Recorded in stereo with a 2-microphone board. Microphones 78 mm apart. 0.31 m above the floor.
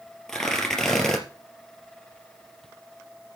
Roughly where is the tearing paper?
Centre.